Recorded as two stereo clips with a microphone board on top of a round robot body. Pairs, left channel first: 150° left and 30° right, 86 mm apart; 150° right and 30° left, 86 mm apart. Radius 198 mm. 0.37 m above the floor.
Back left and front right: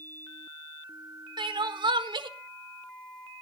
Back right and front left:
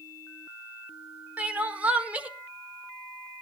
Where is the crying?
45° right, 1.5 m.